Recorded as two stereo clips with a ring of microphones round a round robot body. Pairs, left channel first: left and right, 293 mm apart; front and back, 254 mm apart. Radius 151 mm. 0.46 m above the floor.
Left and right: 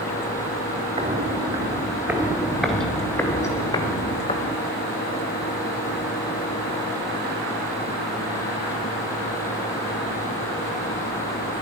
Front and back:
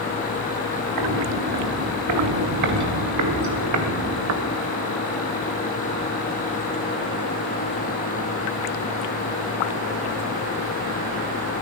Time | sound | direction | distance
1.0 | footsteps | 165° right | 4 m